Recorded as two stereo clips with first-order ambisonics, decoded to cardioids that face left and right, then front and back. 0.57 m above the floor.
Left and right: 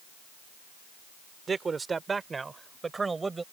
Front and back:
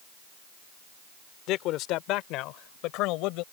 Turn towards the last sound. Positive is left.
turn(degrees=-15)